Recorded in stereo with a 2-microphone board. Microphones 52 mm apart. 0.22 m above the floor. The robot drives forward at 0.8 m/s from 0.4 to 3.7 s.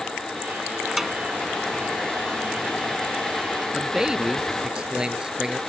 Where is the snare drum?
5° right (ahead or behind).